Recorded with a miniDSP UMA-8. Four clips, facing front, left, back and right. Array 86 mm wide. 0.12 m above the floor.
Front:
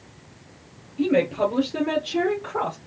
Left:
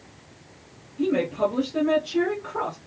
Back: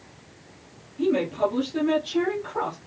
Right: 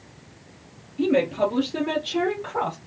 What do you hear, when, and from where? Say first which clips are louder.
1.0 s a woman speaking: right 2 dB, front 2 dB; 25° right, 1.9 m; by 2.8 s 60° right, 2.5 m